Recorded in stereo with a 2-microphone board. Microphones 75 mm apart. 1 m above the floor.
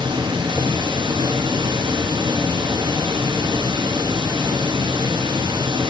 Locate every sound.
0.0 s running water: 80° right, 1.0 m